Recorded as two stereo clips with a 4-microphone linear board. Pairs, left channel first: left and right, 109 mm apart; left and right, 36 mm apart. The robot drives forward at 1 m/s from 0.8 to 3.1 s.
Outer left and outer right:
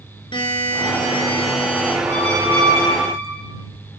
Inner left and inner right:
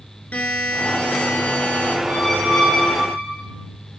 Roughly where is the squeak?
Centre.